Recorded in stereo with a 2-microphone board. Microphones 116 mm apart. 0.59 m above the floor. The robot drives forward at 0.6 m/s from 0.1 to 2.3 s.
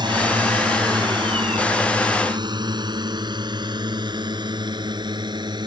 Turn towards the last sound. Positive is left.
turn(degrees=-40)  # may be behind; listen again after turning